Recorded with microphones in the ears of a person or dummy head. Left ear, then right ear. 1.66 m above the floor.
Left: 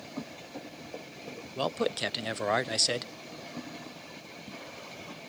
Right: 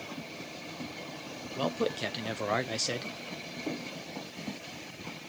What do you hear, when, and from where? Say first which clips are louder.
1.6 s a man speaking: left 1 dB; 20° left (ahead or behind), 0.6 m